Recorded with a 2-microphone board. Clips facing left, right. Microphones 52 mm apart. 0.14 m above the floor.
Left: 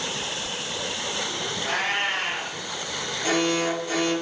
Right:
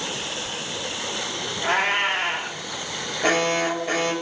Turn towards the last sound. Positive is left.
turn(degrees=-50)  # may be behind; listen again after turning